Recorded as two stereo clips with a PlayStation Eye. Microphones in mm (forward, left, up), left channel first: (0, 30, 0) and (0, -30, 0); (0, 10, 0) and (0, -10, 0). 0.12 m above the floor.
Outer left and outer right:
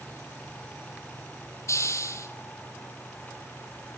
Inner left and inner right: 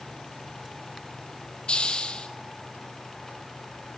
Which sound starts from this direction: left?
A hiss, at 1.7 s.